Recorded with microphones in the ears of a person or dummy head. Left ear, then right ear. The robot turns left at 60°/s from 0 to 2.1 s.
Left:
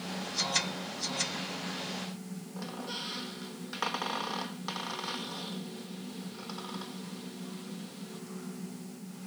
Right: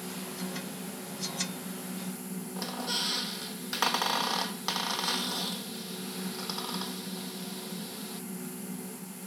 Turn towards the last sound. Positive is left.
turn(degrees=-30)  # may be behind; listen again after turning